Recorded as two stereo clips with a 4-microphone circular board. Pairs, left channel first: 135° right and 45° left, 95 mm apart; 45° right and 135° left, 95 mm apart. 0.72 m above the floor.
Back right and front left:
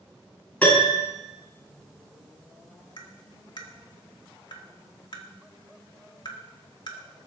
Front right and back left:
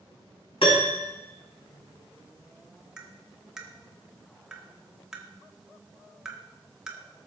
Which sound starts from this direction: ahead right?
A piano, at 0.6 s.